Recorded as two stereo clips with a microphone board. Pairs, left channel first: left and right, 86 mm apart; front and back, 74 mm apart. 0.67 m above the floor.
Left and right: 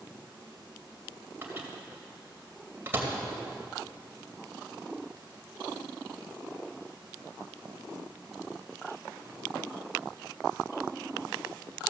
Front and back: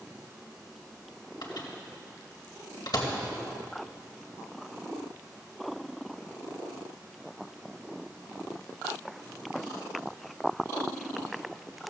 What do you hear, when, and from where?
1.4 s a microwave: 25° right, 2 m